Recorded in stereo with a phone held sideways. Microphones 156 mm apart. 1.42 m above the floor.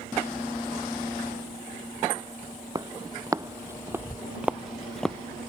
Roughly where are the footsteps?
Right.